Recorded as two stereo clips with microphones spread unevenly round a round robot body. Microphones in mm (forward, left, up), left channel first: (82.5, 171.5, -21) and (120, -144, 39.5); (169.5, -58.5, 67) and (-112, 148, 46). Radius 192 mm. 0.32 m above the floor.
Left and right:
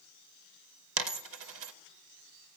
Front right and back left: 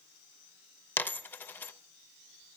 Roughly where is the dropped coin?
Behind right.